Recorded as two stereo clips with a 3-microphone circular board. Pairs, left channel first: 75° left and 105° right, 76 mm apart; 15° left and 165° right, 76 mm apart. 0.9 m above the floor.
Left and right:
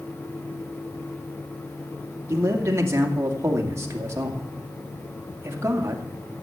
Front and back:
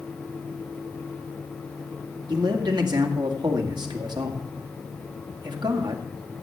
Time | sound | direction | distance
2.3 | a man speaking | 155° right | 2 m